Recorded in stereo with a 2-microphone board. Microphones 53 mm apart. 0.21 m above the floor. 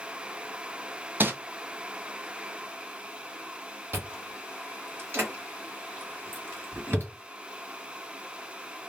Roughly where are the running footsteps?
No running footsteps in this recording.